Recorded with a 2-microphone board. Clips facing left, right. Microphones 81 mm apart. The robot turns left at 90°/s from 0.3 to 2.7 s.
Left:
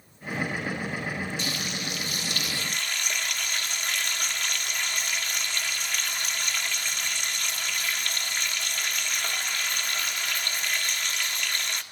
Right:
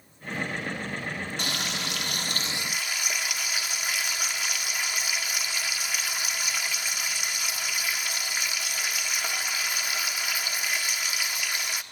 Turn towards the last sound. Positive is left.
turn(degrees=-170)